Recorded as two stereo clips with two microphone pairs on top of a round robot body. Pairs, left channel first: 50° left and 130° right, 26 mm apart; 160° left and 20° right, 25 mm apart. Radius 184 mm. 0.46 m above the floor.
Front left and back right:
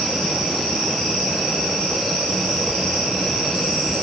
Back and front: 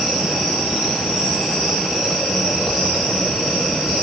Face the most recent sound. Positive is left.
No sound to turn to.